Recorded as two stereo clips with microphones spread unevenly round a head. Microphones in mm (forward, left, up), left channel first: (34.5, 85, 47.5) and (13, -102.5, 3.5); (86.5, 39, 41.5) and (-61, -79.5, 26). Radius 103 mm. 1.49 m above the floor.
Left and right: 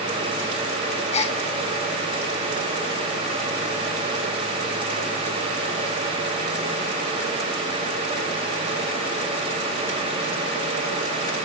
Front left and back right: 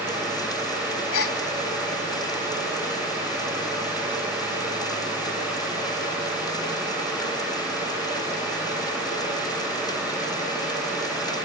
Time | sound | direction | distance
1.1 | a gasp | 30° left | 2.5 m